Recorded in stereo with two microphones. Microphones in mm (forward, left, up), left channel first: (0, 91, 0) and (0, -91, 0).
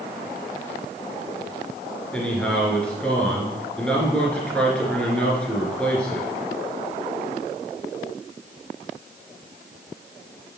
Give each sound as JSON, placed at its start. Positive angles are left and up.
{"t": 2.1, "sound": "a man speaking", "side_deg": 5, "distance_m": 2.5}